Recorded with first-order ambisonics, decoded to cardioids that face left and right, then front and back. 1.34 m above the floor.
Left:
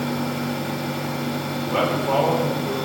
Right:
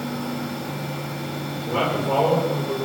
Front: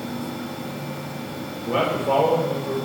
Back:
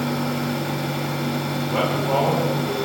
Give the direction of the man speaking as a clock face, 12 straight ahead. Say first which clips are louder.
Left 1 dB, front 2 dB; 11 o'clock.